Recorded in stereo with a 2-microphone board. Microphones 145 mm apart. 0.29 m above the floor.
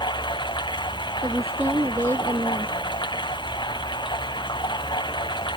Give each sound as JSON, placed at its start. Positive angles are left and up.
{"t": 0.0, "sound": "running water", "side_deg": 30}
{"t": 1.2, "sound": "a woman speaking", "side_deg": -20}